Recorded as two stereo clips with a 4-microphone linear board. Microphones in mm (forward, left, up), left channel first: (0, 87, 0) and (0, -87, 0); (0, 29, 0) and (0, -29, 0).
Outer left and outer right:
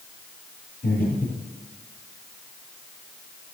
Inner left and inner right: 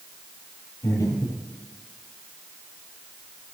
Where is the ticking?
No ticking in this recording.